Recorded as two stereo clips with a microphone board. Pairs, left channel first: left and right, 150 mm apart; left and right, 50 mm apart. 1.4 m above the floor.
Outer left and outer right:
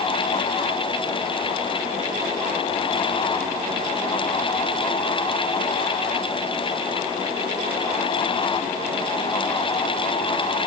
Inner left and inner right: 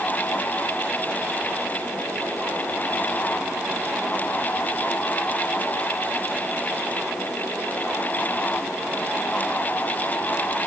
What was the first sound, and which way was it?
Only background noise.